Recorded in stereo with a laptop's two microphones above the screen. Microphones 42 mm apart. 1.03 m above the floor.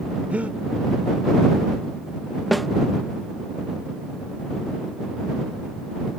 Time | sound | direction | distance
0.3 | breathing | 35° right (ahead or behind) | ?
2.5 | a snare drum | centre (ahead or behind) | ?